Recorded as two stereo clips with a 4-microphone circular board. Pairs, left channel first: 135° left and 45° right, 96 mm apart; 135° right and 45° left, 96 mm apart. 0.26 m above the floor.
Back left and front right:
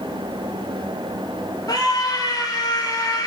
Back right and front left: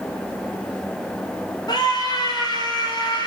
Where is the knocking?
No knocking in this recording.